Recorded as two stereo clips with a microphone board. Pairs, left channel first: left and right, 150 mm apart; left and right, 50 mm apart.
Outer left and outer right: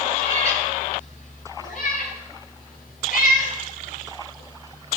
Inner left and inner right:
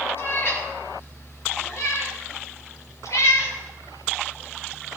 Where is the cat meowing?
45° left (ahead or behind), 4.5 m; by 5.0 s 65° left (ahead or behind), 8 m.